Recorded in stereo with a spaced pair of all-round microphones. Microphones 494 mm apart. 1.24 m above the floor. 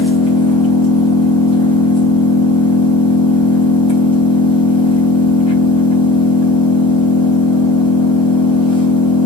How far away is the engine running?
About 3.5 m.